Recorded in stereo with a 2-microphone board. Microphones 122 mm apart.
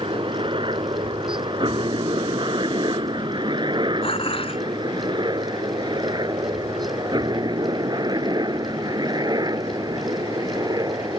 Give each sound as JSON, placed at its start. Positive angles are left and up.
{"t": 0.0, "sound": "a helicopter", "side_deg": -45}
{"t": 4.0, "sound": "dishes clattering", "side_deg": 50}